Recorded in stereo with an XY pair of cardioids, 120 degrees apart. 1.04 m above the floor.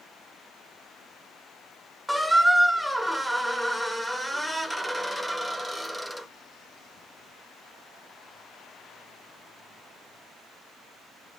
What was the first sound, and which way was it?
A squeak, 5° right.